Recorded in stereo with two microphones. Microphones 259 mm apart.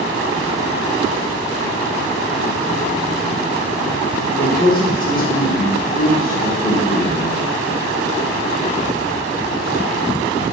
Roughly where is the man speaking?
Left.